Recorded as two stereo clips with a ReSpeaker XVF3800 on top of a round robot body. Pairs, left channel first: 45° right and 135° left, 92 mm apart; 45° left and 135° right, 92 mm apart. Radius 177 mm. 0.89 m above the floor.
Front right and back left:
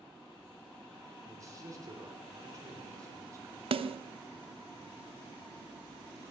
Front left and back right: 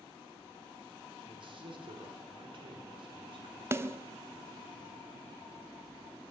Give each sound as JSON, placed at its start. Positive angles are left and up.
{"t": 1.2, "sound": "a man speaking", "azimuth_deg": -170, "distance_m": 4.0}
{"t": 3.7, "sound": "a snare drum", "azimuth_deg": 160, "distance_m": 0.6}